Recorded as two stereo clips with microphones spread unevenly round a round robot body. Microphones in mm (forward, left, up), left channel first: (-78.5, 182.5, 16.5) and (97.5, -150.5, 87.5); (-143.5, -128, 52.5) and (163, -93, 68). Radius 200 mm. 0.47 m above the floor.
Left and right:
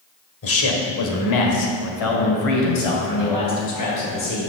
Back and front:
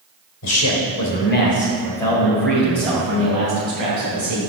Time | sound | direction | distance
0.4 | a man speaking | 165° left | 2.0 m